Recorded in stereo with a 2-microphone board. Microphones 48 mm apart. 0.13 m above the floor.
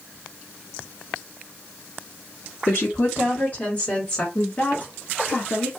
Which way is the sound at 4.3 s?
35° left (ahead or behind).